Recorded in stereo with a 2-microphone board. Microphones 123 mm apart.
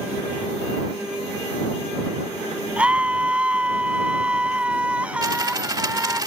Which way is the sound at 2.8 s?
10° right (ahead or behind).